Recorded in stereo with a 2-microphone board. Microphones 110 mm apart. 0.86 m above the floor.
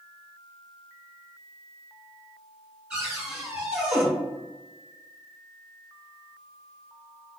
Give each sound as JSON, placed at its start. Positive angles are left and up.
{"t": 2.9, "sound": "a cupboard door", "side_deg": -10, "distance_m": 1.9}